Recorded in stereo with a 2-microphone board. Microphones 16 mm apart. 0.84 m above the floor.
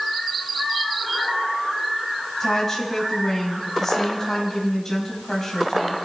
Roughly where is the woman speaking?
Left.